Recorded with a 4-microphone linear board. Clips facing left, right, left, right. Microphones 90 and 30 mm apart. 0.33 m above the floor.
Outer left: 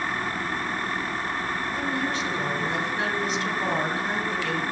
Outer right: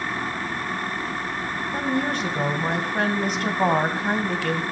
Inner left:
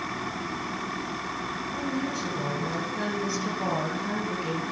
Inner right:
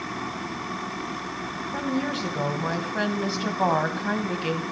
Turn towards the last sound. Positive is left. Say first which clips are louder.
# outer right 6 dB, inner right 5 dB
turn(degrees=-55)  # may be behind; listen again after turning